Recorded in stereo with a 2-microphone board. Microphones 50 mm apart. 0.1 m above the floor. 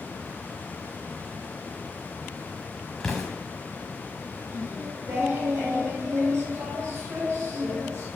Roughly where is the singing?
Right.